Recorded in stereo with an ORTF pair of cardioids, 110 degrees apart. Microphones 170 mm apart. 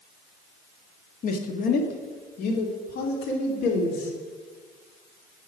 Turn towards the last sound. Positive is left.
turn(degrees=80)